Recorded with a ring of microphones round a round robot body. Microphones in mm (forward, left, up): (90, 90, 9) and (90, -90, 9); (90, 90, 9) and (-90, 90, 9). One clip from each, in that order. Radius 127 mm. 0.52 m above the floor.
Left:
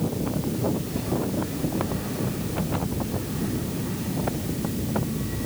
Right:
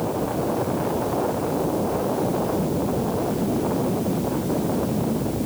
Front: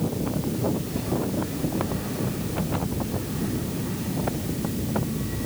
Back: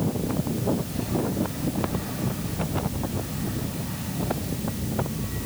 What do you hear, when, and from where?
Only background noise.